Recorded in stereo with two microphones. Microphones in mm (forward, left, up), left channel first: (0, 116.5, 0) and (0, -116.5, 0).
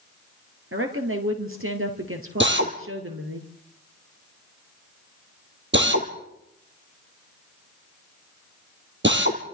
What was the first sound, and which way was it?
A woman speaking, 65° right (ahead or behind).